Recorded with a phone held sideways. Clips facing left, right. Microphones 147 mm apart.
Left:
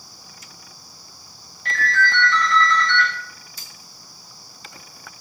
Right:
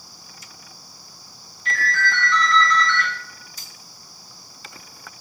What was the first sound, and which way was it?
A ringtone, 60° left (ahead or behind).